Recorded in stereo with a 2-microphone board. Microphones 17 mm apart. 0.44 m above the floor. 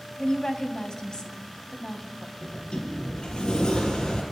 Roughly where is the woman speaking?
Left.